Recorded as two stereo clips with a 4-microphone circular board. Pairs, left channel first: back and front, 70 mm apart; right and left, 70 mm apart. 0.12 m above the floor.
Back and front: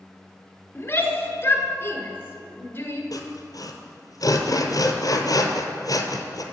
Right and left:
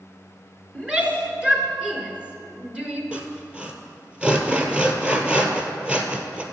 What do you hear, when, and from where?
0.8 s a shout: 155° left, 1.5 m
3.1 s sawing: 165° left, 1.0 m